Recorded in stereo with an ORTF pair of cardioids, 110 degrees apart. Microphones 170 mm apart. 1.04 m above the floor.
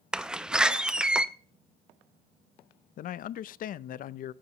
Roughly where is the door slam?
Ahead.